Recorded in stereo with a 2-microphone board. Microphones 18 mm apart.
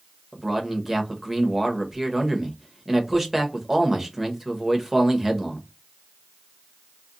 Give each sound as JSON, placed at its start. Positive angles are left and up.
{"t": 0.3, "sound": "a man speaking", "side_deg": -20, "distance_m": 0.8}